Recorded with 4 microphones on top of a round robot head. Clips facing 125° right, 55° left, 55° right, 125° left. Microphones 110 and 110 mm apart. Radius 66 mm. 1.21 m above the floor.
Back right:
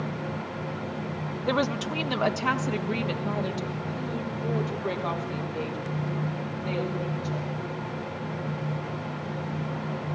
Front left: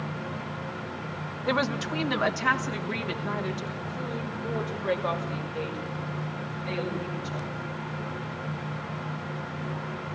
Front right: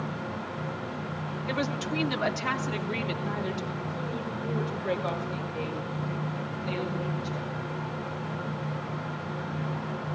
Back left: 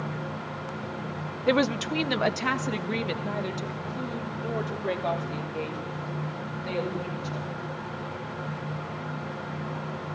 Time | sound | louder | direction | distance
1.5 | a woman speaking | back right 1 dB, back left 8 dB | 145° left | 0.7 m